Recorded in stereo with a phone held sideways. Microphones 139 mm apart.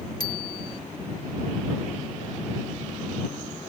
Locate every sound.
0.2 s a bicycle bell: 30° left (ahead or behind)